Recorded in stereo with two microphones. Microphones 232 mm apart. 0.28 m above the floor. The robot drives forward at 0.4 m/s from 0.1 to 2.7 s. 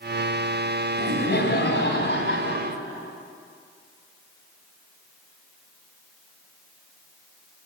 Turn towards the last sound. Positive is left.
turn(degrees=55)  # may be behind; listen again after turning